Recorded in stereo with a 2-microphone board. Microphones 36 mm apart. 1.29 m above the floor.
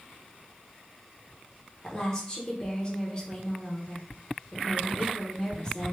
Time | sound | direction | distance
1.8 | a woman speaking | 25° left (ahead or behind) | 1.1 m